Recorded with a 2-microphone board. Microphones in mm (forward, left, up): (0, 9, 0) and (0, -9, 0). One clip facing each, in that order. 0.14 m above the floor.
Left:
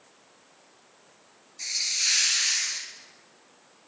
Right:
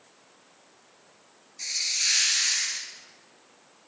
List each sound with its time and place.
1.6 s a hiss: centre (ahead or behind), 1.3 m